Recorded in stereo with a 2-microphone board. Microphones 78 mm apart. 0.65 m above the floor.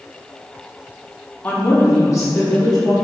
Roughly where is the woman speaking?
Left.